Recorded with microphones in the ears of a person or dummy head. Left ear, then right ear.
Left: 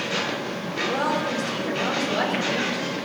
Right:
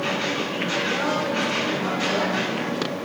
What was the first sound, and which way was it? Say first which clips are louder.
A woman speaking: even; 50° left (ahead or behind).